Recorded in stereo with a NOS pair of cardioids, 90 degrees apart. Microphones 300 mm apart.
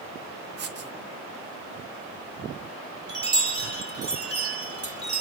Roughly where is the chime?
Ahead right.